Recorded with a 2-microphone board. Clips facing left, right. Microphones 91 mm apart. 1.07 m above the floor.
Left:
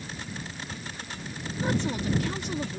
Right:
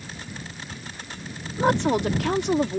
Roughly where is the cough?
No cough in this recording.